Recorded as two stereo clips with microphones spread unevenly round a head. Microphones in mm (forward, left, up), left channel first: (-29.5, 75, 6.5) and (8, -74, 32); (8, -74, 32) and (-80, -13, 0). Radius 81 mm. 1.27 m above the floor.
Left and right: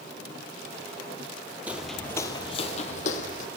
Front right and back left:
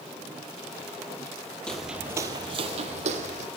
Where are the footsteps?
35° right, 1.3 m; by 3.5 s 145° left, 2.5 m.